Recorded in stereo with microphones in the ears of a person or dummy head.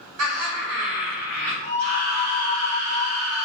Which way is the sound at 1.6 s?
65° right (ahead or behind).